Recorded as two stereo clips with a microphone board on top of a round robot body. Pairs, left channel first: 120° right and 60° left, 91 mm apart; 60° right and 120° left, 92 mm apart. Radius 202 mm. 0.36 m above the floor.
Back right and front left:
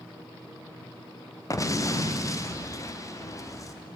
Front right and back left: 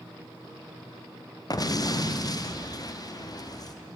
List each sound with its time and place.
1.5 s an explosion: 80° right, 1.0 m